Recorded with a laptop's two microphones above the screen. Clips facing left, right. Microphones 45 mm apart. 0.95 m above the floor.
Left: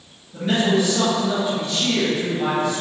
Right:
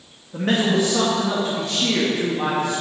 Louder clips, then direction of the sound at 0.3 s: Even; 65° right (ahead or behind).